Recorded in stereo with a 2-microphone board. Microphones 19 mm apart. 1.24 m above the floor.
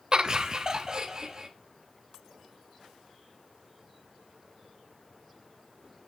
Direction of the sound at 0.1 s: 45° right (ahead or behind).